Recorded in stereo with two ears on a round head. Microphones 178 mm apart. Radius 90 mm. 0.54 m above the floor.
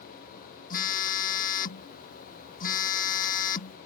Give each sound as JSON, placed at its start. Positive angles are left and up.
{"t": 0.7, "sound": "a phone buzzing", "side_deg": 40}